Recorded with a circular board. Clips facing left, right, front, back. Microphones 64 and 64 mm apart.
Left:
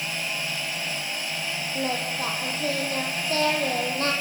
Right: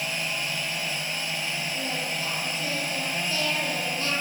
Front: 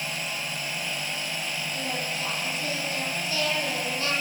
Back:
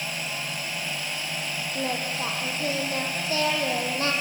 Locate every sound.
1.8 s singing: 130° left, 5 m